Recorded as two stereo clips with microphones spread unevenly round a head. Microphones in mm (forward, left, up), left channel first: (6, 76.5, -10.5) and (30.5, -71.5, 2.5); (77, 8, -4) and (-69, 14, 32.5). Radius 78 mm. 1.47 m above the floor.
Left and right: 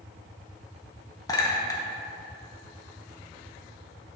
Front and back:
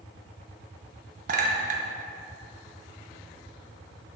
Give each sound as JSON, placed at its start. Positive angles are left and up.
{"t": 1.3, "sound": "a clink", "azimuth_deg": 170, "distance_m": 0.7}